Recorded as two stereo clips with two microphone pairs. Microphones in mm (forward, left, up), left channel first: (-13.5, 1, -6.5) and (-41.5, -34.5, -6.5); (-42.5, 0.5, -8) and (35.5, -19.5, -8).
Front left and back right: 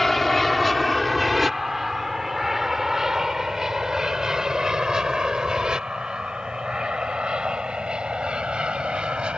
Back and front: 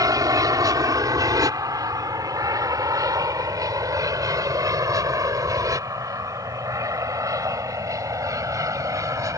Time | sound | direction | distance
0.0 | an aircraft | 35° right | ?